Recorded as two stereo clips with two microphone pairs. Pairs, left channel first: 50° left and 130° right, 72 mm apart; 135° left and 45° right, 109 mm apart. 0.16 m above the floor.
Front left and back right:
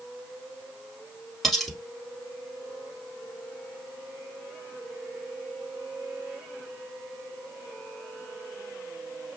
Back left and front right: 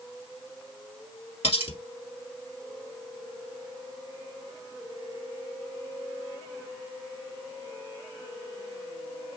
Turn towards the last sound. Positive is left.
turn(degrees=135)